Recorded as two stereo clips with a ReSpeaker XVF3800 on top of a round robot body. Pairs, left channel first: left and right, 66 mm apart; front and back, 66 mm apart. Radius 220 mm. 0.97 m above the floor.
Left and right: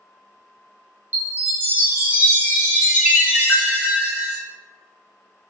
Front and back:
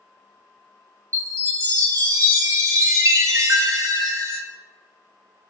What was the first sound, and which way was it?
A chime, 150° right.